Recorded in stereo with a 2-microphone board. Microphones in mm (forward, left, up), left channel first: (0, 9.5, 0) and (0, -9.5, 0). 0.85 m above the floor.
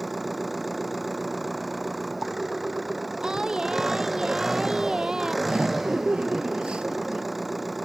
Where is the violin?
I don't hear a violin.